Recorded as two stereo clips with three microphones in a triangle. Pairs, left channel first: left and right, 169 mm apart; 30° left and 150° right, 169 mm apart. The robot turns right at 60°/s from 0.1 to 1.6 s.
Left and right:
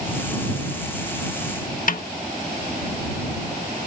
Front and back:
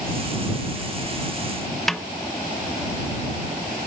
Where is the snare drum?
120° left.